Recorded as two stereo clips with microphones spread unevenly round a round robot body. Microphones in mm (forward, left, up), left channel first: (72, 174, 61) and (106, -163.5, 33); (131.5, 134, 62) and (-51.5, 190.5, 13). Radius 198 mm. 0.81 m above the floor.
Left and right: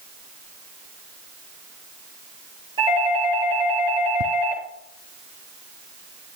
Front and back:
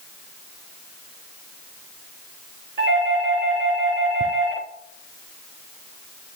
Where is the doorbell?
160° right, 5 m.